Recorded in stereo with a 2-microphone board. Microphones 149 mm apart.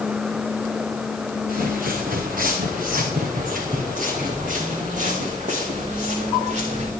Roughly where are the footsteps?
Right.